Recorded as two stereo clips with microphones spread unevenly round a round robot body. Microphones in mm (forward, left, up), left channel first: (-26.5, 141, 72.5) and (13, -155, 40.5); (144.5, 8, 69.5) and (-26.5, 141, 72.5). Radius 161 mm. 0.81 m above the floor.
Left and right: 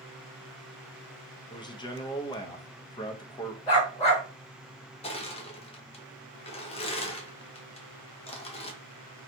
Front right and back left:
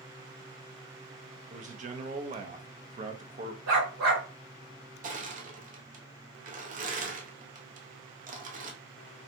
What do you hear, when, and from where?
1.5 s a man speaking: 175° left, 0.6 m
3.7 s a dog barking: 165° left, 1.4 m
5.0 s crushing: 165° left, 0.6 m